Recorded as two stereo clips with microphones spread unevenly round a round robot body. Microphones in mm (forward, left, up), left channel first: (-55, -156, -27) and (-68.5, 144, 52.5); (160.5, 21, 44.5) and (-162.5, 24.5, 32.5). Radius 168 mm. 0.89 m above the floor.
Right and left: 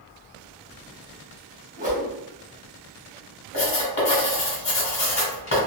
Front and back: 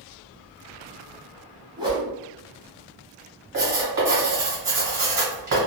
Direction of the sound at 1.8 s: 105° left.